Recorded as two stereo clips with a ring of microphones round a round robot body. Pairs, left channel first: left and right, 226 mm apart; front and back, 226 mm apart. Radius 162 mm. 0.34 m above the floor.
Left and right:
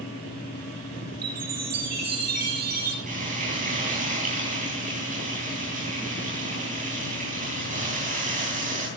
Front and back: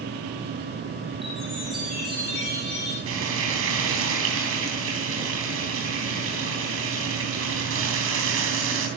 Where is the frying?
150° right, 3.5 m.